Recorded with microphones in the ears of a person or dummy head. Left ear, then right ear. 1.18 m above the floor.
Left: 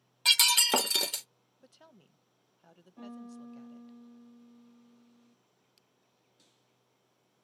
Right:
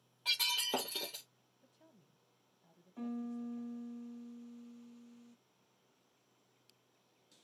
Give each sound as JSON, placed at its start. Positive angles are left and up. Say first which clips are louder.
{"t": 0.2, "sound": "breaking glass", "louder": "left 10 dB", "side_deg": 60, "distance_m": 0.6}
{"t": 1.6, "sound": "a woman speaking", "louder": "left 9 dB", "side_deg": 60, "distance_m": 0.5}
{"t": 3.0, "sound": "a piano", "louder": "right 4 dB", "side_deg": -55, "distance_m": 0.5}